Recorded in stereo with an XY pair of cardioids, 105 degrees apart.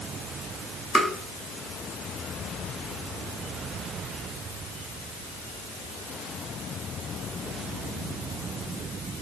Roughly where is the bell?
No bell in this recording.